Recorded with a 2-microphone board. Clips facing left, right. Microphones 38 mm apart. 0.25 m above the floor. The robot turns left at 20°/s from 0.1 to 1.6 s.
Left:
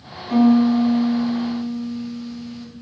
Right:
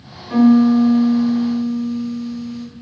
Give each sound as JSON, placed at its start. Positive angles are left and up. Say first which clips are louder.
{"t": 0.3, "sound": "a piano", "louder": "right 3 dB", "side_deg": 20, "distance_m": 1.3}